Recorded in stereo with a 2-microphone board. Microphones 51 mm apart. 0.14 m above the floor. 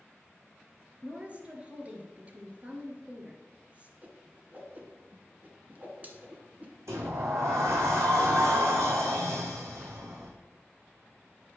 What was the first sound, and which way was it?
A woman speaking, 30° right (ahead or behind).